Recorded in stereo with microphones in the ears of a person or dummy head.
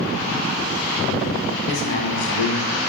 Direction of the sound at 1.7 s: 70° left (ahead or behind).